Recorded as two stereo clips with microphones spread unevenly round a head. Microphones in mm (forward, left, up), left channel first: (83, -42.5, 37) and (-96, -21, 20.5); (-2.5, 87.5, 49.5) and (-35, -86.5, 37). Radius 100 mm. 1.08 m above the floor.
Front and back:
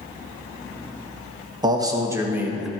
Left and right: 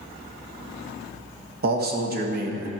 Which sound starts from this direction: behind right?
A man speaking, at 1.6 s.